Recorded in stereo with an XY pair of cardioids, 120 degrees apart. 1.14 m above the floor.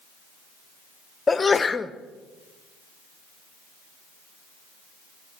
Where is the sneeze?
25° left, 0.7 m.